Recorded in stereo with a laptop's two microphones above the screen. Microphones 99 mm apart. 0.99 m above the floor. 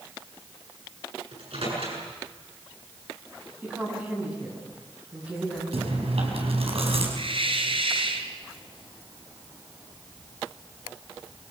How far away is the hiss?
About 2.5 m.